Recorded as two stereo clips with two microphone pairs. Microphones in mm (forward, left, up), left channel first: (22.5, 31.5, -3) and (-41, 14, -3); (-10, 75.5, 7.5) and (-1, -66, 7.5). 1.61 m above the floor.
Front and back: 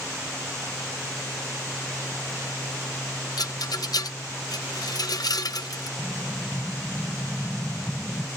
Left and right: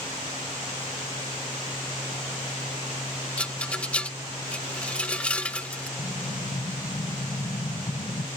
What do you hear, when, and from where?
3.4 s a rattle: 15° left
6.0 s an explosion: 110° left